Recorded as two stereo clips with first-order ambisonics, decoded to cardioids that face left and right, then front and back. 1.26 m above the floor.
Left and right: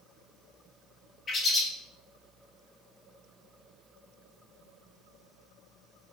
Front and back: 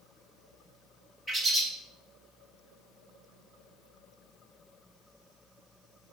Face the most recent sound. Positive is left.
turn(degrees=135)